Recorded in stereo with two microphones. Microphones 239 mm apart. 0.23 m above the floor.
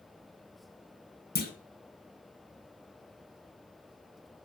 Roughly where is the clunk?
Left.